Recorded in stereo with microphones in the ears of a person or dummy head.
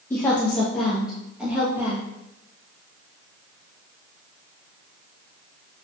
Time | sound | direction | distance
0.1 | a woman speaking | 10° left (ahead or behind) | 1.3 m